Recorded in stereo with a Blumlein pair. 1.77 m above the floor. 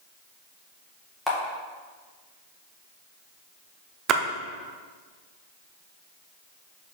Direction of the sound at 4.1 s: 30° right.